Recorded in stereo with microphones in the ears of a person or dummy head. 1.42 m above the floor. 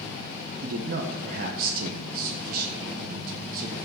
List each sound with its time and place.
0.6 s a man speaking: 55° right (ahead or behind), 1.4 m